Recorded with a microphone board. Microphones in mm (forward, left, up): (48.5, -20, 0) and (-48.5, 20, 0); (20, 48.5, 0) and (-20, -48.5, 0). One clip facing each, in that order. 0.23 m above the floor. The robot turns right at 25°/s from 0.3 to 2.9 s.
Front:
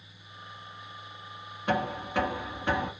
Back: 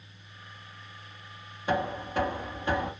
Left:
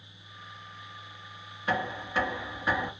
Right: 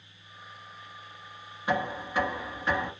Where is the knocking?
40° right, 2 m; by 2.9 s 10° right, 2 m.